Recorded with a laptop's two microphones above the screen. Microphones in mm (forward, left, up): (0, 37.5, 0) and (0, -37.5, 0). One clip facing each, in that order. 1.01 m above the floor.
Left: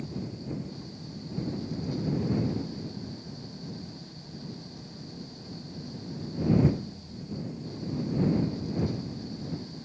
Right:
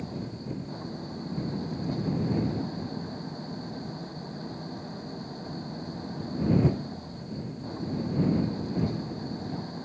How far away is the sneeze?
I don't hear a sneeze.